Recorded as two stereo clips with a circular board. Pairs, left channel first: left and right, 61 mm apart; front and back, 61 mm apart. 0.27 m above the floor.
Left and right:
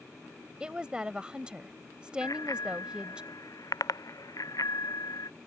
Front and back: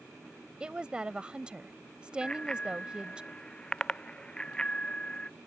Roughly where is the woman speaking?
Behind right.